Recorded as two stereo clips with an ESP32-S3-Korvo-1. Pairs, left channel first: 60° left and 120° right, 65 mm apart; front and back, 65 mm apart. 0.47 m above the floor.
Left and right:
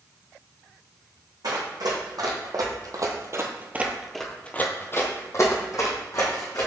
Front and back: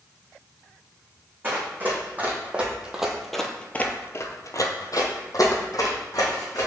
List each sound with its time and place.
1.4 s running footsteps: 120° right, 1.8 m; by 6.7 s 35° left, 1.9 m